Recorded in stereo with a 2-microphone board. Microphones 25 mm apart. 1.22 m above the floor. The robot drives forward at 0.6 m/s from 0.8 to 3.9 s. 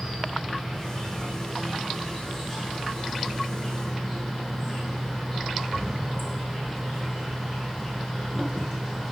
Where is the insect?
Centre (ahead or behind), 9.5 m.